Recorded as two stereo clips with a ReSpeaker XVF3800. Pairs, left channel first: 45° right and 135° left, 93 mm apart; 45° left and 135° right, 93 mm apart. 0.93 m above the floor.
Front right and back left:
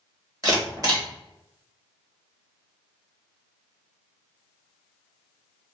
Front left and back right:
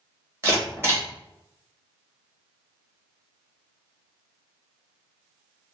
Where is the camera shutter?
170° left, 1.2 m.